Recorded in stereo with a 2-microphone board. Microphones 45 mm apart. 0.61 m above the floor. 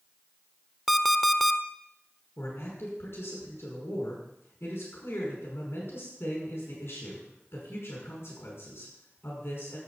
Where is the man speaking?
65° left (ahead or behind), 5.5 m.